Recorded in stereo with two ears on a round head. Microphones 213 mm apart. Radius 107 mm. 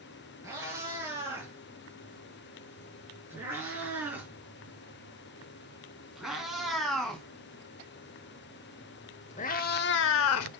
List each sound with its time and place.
0.4 s a cat meowing: 10° right (ahead or behind), 5 m; by 10.5 s 65° left (ahead or behind), 0.8 m